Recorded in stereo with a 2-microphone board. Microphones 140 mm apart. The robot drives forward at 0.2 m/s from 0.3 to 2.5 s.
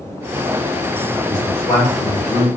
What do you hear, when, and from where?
1.3 s a man speaking: 15° left (ahead or behind), 1.8 m